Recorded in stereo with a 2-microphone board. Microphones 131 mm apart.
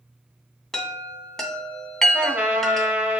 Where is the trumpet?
10° right (ahead or behind), 0.8 m.